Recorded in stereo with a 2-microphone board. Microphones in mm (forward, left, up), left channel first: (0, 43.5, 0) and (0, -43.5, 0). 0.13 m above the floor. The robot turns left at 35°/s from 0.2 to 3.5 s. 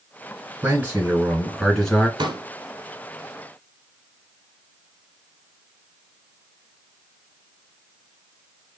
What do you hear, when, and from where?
0.6 s a man speaking: 145° right, 1.9 m; by 2.1 s 165° left, 1.9 m
2.2 s a pop: 60° right (ahead or behind), 0.7 m; by 2.4 s 55° right (ahead or behind), 0.7 m